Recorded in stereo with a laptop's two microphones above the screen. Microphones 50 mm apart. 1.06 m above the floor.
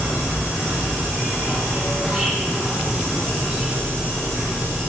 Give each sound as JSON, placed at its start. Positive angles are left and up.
{"t": 0.0, "sound": "an insect", "side_deg": -15, "distance_m": 0.8}